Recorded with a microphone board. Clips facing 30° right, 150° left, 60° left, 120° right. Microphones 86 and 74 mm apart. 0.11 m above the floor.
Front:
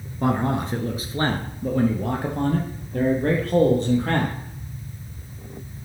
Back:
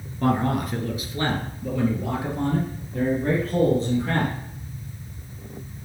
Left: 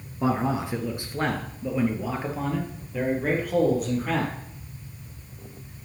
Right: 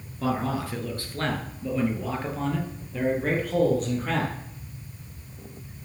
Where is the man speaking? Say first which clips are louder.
Even, left 2 dB; 20° left, 1.3 m; by 4.3 s 25° right, 3 m.